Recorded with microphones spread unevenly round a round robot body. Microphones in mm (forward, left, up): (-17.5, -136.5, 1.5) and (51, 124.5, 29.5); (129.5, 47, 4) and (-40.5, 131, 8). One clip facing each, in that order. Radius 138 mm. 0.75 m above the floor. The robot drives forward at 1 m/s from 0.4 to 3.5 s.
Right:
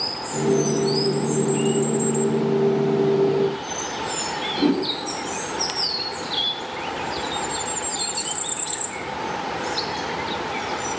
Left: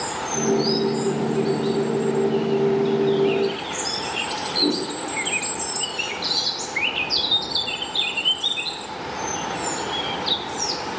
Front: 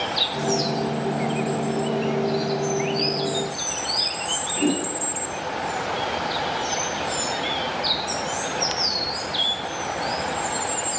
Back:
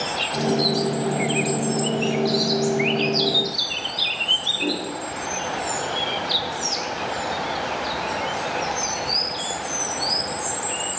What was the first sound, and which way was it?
A whoosh, 80° right.